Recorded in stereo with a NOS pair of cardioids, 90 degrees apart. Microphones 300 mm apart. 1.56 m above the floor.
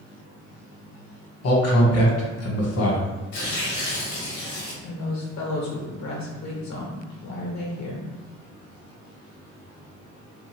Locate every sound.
1.4 s a man speaking: 55° left, 1.2 m
3.3 s tearing paper: 70° left, 1.2 m
4.8 s a woman speaking: 65° left, 1.1 m